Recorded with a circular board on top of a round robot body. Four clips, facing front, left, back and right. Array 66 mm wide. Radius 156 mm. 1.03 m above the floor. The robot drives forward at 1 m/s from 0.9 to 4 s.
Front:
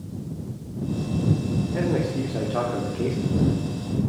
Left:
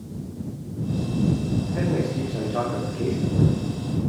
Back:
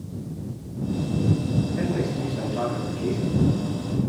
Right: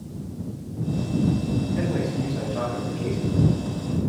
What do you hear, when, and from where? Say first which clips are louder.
1.7 s a man speaking: left 1 dB, front 1 dB; 20° left, 4 m; by 3.7 s 40° left, 2.5 m